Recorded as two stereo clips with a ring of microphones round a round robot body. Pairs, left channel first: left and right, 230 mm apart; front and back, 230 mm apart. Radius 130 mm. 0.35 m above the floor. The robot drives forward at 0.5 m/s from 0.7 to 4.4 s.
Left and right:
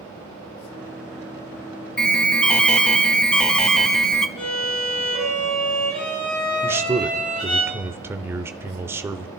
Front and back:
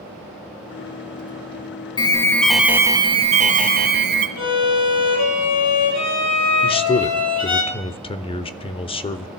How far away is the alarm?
About 0.9 m.